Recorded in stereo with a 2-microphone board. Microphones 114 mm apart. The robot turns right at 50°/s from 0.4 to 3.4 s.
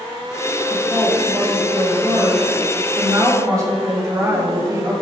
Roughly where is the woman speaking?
Behind.